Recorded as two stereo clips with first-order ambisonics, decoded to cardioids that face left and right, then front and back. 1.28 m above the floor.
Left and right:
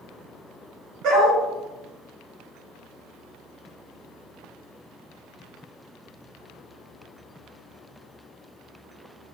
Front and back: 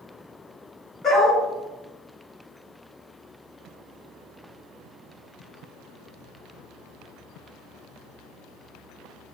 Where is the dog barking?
75° right, 1.8 m.